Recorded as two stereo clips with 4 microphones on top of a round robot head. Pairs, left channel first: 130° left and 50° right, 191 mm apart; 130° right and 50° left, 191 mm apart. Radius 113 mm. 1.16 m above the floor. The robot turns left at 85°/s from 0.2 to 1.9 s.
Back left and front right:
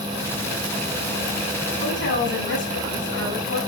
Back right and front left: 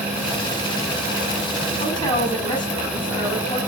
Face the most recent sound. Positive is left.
turn(degrees=160)